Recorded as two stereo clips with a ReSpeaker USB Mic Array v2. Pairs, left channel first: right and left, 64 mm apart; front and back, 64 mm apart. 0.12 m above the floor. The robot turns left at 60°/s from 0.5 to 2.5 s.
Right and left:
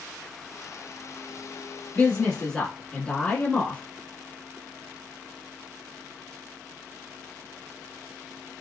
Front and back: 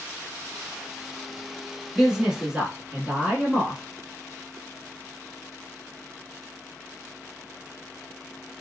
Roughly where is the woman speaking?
Right.